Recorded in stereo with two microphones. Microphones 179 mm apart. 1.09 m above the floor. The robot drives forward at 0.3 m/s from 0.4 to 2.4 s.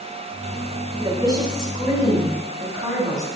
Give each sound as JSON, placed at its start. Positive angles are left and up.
{"t": 1.0, "sound": "a woman speaking", "side_deg": -25, "distance_m": 2.5}